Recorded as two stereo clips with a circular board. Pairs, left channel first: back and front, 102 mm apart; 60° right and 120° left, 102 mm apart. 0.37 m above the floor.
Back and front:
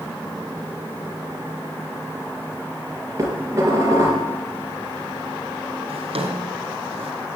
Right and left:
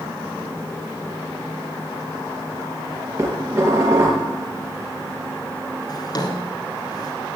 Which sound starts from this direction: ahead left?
Dishes clattering, at 3.2 s.